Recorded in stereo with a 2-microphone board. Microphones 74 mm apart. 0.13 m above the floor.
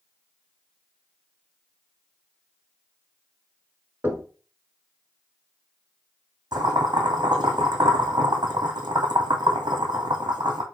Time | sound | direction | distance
4.0 | knocking | 30° right (ahead or behind) | 1.3 m
6.5 | boiling | 70° right (ahead or behind) | 1.5 m